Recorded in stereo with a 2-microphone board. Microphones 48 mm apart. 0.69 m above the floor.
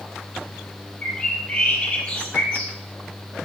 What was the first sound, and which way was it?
A bird, 35° left (ahead or behind).